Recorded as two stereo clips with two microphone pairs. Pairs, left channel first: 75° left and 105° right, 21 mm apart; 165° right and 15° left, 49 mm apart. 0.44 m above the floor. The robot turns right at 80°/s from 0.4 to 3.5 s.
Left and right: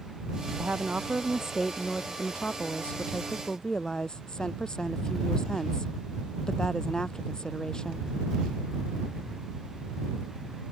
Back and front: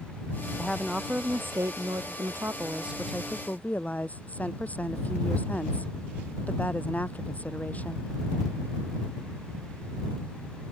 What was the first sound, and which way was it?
A woman speaking, 95° right.